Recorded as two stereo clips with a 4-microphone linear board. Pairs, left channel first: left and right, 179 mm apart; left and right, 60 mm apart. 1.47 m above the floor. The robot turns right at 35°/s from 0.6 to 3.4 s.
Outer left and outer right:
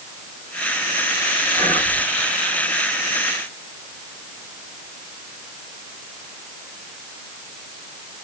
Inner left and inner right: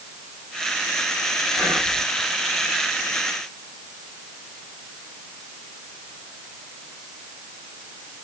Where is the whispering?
20° left (ahead or behind), 1.1 m; by 2.0 s centre (ahead or behind), 1.1 m.